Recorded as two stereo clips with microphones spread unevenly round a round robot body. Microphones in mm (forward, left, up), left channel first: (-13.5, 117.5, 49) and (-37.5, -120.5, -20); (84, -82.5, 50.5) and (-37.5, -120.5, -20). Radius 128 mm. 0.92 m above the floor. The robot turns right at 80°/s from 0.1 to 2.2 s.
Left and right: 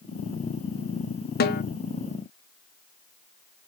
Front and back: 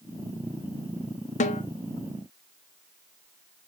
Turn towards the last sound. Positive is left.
turn(degrees=115)